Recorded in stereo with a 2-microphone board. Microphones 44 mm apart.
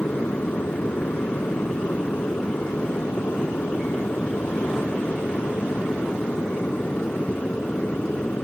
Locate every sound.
0.0 s an aircraft: 50° left (ahead or behind); by 8.4 s 30° left (ahead or behind)